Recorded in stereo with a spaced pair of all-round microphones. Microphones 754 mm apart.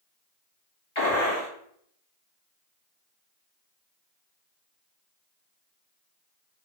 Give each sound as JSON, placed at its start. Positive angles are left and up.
{"t": 0.9, "sound": "a gunshot", "side_deg": 40, "distance_m": 1.6}